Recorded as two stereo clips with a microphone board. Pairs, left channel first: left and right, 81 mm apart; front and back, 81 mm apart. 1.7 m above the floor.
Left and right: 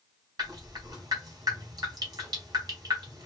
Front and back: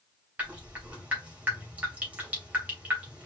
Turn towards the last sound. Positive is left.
turn(degrees=-110)